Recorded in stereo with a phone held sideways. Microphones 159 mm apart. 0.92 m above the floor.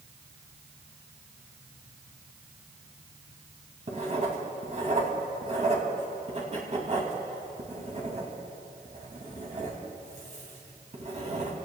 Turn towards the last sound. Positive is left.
turn(degrees=-45)  # may be behind; listen again after turning